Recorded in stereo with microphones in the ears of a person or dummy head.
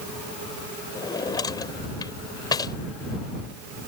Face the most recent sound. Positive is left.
turn(degrees=20)  # may be behind; listen again after turning